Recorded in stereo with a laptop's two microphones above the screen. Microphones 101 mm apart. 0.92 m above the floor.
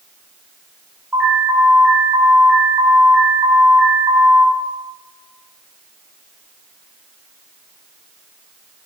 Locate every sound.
1.1 s an alarm: 20° right (ahead or behind), 3.5 m